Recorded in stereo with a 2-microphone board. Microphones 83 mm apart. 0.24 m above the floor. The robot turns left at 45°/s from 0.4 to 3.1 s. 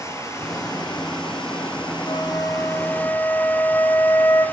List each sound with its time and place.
0.0 s running water: 140° left, 4.5 m; by 4.5 s 20° left, 4.5 m
2.1 s a flute: 65° left, 2.5 m; by 4.5 s 15° left, 2.5 m